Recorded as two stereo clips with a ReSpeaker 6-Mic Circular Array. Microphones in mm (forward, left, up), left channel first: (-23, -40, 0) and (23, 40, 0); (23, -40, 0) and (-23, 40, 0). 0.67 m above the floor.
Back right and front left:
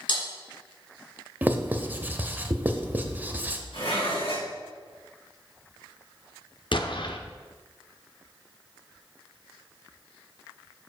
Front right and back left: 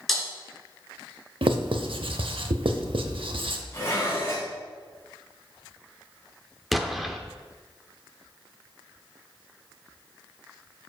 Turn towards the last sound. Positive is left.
turn(degrees=-150)